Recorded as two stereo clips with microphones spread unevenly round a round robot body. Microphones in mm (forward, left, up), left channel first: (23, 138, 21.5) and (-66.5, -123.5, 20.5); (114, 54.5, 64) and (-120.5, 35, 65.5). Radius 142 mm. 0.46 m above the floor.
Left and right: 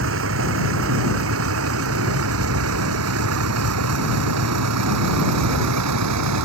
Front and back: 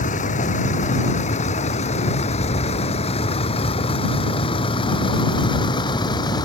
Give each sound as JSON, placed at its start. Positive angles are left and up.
{"t": 0.0, "sound": "a vehicle", "azimuth_deg": -60}